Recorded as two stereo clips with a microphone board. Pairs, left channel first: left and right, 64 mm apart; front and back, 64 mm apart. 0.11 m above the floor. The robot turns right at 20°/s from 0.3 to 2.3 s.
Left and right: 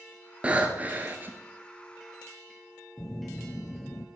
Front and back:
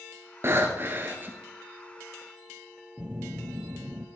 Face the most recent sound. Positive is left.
turn(degrees=120)